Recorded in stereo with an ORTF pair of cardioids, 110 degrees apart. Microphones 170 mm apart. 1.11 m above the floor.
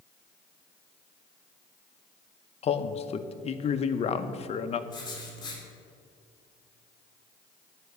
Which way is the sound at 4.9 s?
25° left.